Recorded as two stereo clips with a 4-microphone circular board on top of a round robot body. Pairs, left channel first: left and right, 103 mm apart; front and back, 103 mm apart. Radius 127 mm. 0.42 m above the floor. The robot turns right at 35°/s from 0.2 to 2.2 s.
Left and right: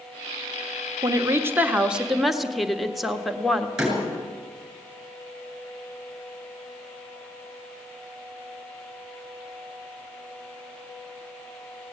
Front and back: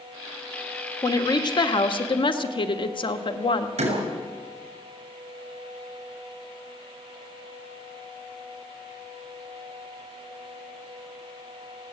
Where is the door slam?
175° right, 7 m.